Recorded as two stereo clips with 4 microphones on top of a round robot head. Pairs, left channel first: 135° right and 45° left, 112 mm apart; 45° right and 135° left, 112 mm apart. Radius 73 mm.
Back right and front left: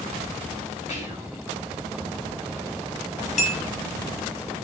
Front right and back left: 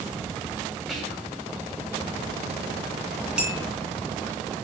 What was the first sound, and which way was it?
Whispering, 135° right.